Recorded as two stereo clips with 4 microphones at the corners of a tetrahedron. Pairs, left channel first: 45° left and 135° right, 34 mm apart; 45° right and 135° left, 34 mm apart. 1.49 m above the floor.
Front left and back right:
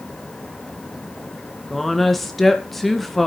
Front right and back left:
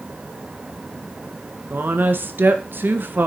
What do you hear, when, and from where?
1.7 s a woman speaking: 130° left, 1.8 m